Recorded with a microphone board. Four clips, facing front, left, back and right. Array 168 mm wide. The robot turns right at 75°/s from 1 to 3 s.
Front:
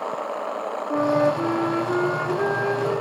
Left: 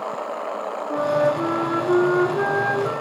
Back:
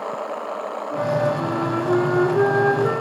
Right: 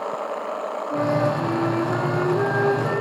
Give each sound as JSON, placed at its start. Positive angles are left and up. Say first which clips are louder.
{"t": 0.9, "sound": "a flute", "louder": "left 2 dB, front 2 dB", "azimuth_deg": 40, "distance_m": 0.7}